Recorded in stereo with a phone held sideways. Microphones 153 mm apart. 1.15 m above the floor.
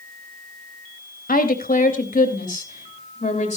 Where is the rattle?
No rattle in this recording.